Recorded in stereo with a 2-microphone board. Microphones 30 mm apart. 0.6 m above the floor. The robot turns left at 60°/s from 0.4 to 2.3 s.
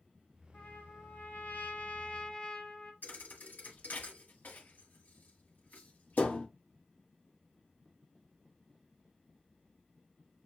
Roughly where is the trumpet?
Behind left.